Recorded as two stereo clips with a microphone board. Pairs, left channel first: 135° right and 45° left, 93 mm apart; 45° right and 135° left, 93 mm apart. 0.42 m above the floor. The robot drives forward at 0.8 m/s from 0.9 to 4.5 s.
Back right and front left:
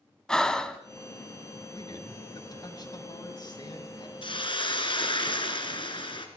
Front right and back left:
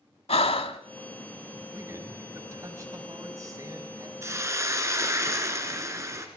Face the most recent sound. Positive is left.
turn(degrees=-165)